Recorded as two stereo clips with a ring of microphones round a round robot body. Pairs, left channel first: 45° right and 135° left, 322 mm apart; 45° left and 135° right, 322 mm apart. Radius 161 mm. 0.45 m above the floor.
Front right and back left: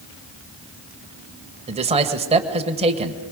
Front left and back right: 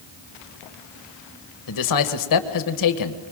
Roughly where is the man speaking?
Ahead left.